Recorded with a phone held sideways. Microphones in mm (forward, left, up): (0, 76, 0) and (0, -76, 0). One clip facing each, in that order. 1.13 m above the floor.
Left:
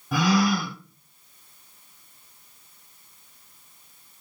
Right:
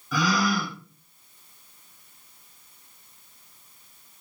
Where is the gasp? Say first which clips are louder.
Left 3 dB; 50° left (ahead or behind), 1.1 m.